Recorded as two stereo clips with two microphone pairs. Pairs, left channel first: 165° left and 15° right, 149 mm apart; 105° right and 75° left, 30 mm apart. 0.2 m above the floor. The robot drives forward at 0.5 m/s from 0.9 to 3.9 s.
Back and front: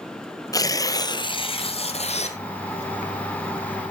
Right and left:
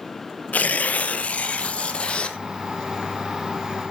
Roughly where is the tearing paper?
Behind right.